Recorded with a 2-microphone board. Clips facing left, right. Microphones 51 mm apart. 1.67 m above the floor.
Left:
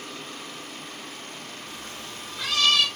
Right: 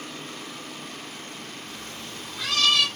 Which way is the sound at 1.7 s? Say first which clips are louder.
Even; 15° left (ahead or behind).